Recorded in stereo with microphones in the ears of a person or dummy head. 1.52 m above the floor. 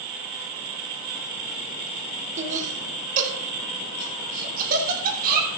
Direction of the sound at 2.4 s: 40° right (ahead or behind).